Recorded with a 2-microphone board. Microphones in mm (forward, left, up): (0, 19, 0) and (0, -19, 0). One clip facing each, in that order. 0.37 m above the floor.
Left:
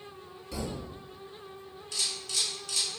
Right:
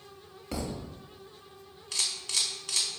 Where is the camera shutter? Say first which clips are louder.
Right 1 dB; 80° right, 0.6 m.